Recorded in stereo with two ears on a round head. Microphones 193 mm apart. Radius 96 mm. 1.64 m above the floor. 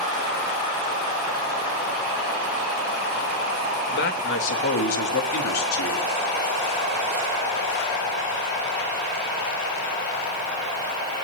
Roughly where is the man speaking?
Left.